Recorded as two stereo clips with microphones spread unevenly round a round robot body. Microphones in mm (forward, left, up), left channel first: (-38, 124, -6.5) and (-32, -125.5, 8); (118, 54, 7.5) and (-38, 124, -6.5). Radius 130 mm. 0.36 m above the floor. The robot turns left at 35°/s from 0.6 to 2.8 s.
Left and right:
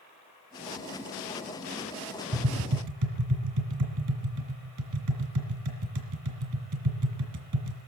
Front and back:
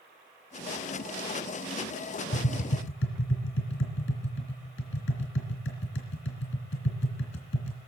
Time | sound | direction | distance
2.3 | tapping | 45° right | 3 m